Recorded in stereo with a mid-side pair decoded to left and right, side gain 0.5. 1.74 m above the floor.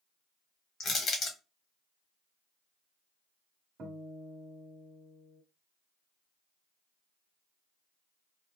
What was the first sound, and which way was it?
Crushing, 45° left.